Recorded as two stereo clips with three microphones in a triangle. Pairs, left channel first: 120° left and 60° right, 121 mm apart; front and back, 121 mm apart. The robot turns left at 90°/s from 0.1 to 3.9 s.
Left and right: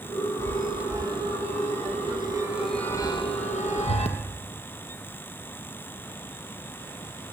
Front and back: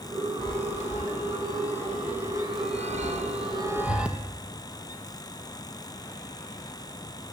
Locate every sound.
0.4 s a chime: 55° left, 3 m; by 4.2 s 100° left, 3 m